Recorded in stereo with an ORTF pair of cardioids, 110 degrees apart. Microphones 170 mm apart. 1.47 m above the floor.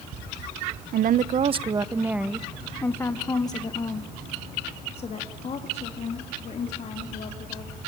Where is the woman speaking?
55° right, 0.9 m; by 7.8 s 45° left, 4 m.